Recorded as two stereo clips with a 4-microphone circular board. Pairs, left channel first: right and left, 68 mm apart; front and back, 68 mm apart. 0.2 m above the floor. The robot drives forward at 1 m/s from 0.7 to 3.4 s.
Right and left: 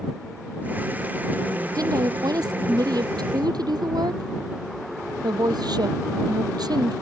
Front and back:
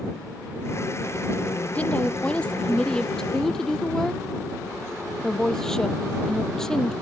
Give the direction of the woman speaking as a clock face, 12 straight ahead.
10 o'clock.